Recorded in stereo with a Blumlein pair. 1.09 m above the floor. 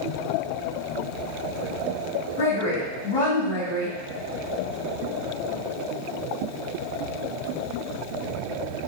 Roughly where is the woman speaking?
Ahead left.